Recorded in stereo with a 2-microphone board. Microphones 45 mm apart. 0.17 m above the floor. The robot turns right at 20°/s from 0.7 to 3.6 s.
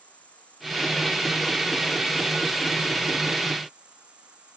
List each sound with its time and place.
0.0 s an insect: 150° left; by 4.6 s 155° right